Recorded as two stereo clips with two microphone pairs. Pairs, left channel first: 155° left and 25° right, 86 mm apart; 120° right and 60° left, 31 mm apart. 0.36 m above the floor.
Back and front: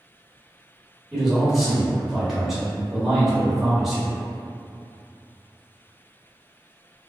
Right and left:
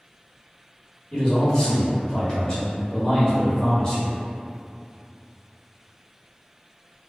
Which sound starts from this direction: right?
A man speaking, at 1.1 s.